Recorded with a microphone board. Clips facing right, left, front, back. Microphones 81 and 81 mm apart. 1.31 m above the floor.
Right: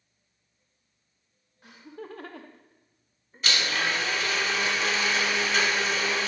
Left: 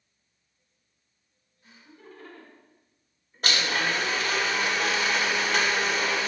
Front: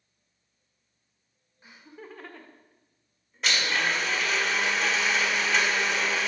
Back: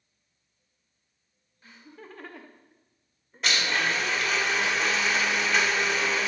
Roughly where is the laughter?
Right.